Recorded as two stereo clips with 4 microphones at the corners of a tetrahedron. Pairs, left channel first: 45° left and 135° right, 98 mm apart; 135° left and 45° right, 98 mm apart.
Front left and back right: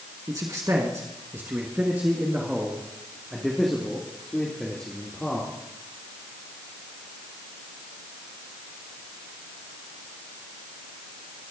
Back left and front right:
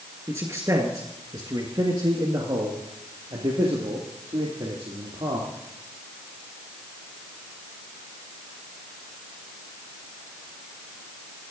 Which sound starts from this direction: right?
A man speaking, at 0.3 s.